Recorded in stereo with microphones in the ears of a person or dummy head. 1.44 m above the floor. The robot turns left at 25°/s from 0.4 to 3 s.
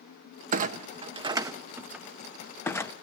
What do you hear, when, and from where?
0.5 s a clunk: 45° right (ahead or behind), 0.7 m; by 2.9 s 15° left (ahead or behind), 0.7 m